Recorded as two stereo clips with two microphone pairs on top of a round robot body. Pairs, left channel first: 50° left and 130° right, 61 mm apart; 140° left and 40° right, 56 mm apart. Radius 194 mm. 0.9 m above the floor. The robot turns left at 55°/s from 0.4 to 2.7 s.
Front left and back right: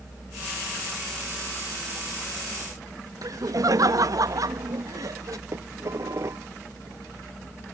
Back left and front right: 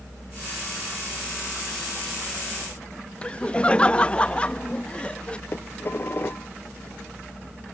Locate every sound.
3.2 s laughter: 150° right
5.5 s dishes clattering: 170° right